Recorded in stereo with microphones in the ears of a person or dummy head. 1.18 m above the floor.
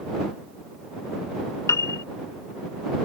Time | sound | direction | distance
1.7 | a piano | 20° left (ahead or behind) | ?